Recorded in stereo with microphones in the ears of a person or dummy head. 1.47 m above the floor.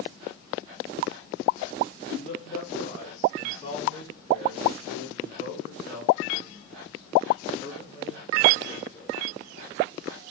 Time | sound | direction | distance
2.2 | a man speaking | 50° left (ahead or behind) | 2.5 m